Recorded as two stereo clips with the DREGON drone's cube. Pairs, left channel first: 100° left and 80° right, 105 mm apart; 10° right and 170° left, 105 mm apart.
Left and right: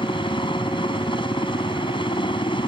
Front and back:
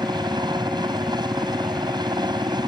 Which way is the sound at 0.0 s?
130° left.